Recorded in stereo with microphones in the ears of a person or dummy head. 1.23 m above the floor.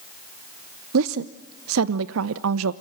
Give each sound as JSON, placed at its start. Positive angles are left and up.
{"t": 0.9, "sound": "a woman speaking", "side_deg": -70, "distance_m": 0.7}